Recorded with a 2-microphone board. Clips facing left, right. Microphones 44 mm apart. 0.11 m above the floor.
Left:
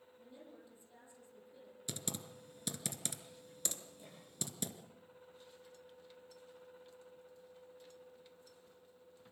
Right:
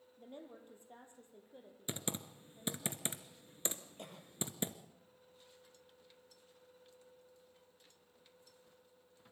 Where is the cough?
65° right (ahead or behind), 3.5 m.